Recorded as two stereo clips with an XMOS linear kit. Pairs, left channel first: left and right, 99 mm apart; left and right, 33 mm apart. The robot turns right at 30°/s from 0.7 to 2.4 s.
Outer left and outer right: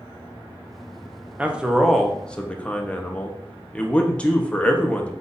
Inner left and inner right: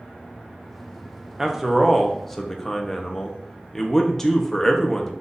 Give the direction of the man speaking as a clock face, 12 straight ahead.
1 o'clock.